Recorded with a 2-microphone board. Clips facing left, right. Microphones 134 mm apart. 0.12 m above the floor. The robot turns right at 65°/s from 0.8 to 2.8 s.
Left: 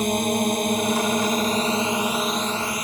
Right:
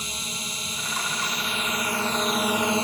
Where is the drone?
80° left; by 2.9 s 150° right.